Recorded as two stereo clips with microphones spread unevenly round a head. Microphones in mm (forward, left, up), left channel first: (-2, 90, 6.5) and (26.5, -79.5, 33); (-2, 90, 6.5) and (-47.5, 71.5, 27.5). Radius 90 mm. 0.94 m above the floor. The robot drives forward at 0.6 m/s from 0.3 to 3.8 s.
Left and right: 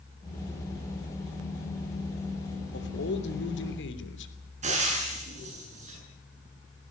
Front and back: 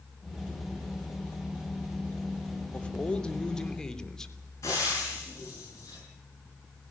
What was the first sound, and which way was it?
A man speaking, 85° left.